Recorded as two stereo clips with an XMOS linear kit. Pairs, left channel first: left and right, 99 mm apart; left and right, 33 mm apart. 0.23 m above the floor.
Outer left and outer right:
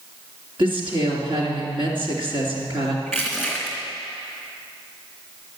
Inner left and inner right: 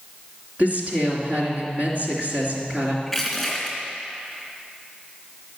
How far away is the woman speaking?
About 2.5 m.